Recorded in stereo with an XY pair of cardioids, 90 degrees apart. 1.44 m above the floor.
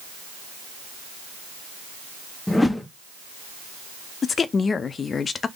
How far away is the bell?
No bell in this recording.